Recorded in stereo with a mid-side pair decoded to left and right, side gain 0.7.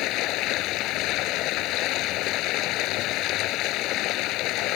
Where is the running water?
60° left.